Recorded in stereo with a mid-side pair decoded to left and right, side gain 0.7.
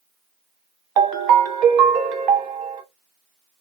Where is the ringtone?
55° right, 0.9 m.